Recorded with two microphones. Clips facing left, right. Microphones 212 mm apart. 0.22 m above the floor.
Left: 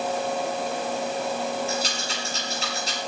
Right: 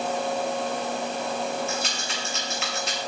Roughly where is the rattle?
Left.